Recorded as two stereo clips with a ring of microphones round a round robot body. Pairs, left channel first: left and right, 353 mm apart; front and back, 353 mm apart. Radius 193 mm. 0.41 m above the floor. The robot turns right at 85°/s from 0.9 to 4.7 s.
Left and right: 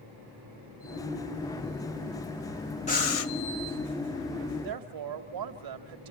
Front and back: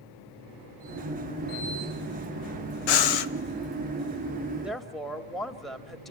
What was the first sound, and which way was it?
Breathing, 15° left.